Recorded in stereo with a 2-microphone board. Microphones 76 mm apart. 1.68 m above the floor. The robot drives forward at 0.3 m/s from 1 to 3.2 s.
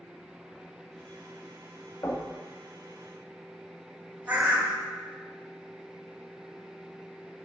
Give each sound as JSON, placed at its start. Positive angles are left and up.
{"t": 2.0, "sound": "knocking", "side_deg": 50, "distance_m": 2.5}
{"t": 4.3, "sound": "a bird", "side_deg": -20, "distance_m": 1.4}